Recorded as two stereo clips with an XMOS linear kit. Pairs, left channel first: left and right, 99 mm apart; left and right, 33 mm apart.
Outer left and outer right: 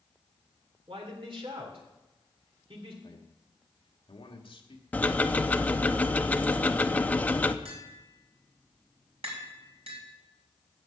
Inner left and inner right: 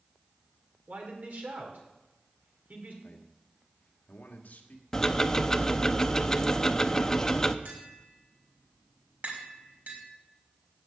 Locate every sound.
0.9 s a man speaking: 65° right (ahead or behind), 3 m
3.0 s a man speaking: 60° left (ahead or behind), 1.8 m
4.9 s ticking: 15° left (ahead or behind), 0.6 m
7.7 s tapping: 80° right, 5 m